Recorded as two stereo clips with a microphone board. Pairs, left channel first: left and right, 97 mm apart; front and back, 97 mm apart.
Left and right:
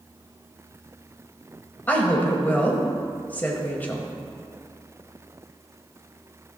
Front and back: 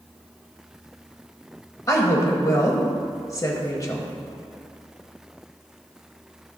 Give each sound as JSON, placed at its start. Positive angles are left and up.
{"t": 1.9, "sound": "a woman speaking", "azimuth_deg": 30, "distance_m": 1.4}